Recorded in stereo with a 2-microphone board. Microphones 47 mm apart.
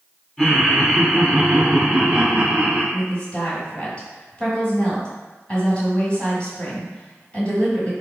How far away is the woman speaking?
About 1.6 m.